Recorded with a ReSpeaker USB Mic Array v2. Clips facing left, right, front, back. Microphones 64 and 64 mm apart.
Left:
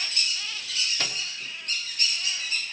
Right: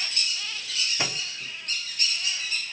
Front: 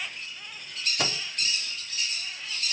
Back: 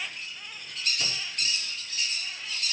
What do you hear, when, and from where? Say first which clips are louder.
1.0 s a microwave: right 2 dB, front 4 dB; 20° right, 1.3 m